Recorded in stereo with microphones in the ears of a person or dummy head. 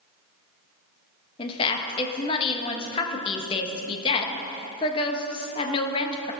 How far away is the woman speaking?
About 1.3 m.